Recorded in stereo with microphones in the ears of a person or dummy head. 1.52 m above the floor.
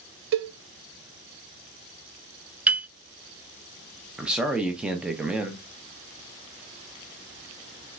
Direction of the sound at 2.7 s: 10° right (ahead or behind).